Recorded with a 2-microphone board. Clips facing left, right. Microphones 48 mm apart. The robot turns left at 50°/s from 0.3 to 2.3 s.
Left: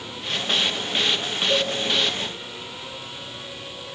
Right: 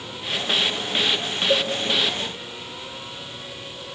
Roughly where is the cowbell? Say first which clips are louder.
Right 2 dB; right.